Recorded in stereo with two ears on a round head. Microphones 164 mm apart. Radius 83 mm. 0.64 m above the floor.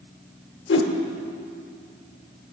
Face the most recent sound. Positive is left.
turn(degrees=65)  # may be behind; listen again after turning